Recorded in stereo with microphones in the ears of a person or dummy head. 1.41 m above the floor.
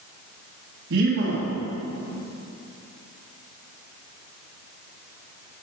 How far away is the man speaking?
About 1.4 m.